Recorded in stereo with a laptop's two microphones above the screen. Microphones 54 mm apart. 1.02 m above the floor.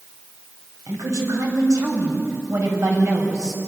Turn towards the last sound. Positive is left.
turn(degrees=-70)  # may be behind; listen again after turning